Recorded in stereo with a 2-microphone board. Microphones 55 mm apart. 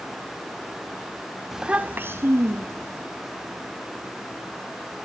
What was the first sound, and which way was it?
A child speaking, 5° right (ahead or behind).